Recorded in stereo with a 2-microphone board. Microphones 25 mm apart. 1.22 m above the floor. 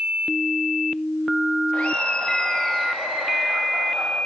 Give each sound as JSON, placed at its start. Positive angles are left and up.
{"t": 1.7, "sound": "laughter", "side_deg": 65, "distance_m": 1.7}